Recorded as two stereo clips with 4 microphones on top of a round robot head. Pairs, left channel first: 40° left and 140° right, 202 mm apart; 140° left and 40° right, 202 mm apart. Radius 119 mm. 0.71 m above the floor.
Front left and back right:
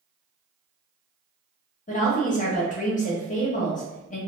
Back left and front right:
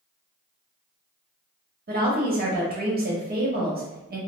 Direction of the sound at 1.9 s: 5° right.